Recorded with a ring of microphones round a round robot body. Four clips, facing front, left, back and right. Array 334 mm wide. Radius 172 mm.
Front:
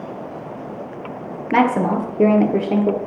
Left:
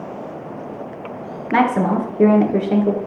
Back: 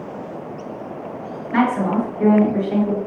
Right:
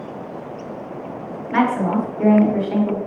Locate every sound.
1.5 s a woman speaking: 40° left, 1.6 m